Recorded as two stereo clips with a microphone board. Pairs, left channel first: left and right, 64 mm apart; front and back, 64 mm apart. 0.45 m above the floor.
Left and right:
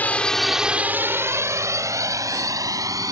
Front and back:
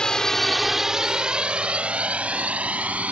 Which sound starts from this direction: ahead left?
A drone, at 0.0 s.